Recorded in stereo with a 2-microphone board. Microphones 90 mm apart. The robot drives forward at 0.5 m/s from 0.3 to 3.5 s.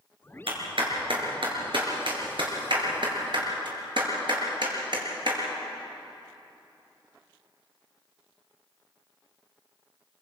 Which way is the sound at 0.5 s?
75° right (ahead or behind).